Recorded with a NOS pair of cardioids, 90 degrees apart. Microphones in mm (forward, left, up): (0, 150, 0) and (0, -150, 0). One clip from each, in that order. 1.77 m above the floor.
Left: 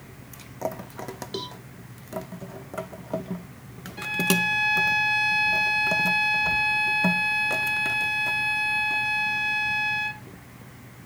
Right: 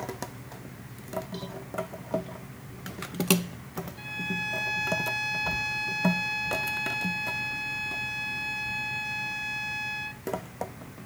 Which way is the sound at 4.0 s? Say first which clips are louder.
Left 9 dB; 60° left.